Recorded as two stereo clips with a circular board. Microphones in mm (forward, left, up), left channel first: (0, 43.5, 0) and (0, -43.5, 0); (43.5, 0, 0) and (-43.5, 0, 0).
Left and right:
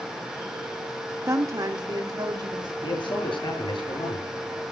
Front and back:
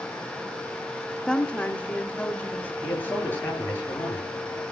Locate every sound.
1.3 s a woman speaking: 75° right, 0.9 m; by 2.7 s 65° right, 2.5 m
2.8 s a man speaking: 70° left, 8.5 m